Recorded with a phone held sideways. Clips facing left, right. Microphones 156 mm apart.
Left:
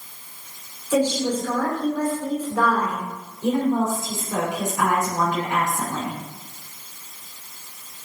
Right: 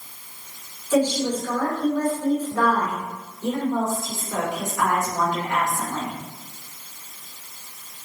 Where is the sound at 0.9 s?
15° left (ahead or behind), 4 m.